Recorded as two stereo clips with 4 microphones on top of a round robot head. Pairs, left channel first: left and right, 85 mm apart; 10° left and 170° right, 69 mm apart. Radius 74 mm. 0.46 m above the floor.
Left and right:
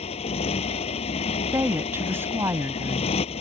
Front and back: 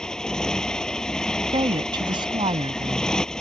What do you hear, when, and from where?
0.0 s a motorcycle: 95° left
1.5 s a woman speaking: 155° right